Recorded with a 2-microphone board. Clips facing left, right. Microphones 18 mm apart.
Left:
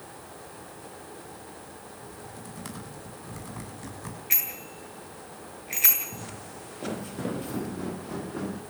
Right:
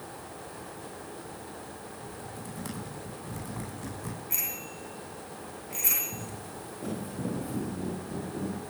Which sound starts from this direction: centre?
Typing on a keyboard, at 2.0 s.